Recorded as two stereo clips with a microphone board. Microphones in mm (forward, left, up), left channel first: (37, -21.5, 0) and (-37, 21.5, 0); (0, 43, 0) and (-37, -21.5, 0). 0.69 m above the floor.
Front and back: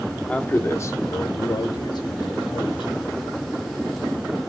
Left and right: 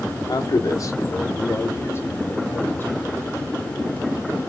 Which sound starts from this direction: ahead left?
A man speaking, at 0.3 s.